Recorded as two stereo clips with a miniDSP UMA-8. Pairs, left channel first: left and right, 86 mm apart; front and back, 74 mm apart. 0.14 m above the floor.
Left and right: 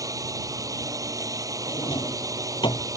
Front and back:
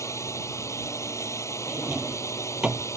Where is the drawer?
100° left.